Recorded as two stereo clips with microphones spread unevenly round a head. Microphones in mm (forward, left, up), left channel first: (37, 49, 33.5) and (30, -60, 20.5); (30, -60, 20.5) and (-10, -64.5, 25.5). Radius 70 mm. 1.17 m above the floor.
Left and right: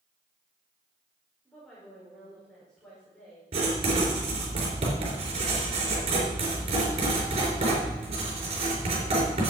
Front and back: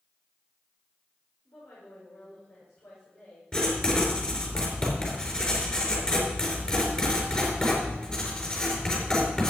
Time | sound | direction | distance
1.4 | a woman speaking | straight ahead | 5 m
3.5 | writing | 60° right | 4 m